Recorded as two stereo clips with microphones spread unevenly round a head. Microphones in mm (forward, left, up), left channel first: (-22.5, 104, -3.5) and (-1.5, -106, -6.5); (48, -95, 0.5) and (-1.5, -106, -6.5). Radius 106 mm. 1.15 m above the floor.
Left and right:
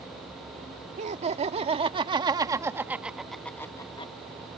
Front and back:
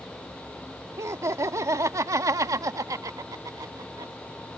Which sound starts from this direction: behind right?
Laughter, at 1.0 s.